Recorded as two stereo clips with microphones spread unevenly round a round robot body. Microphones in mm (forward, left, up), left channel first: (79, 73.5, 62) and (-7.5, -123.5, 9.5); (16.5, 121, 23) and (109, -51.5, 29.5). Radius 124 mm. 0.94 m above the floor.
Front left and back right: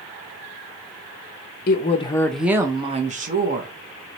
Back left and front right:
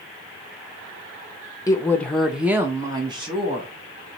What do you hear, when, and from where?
1.7 s a woman speaking: 70° left, 0.6 m; by 3.7 s 125° right, 1.1 m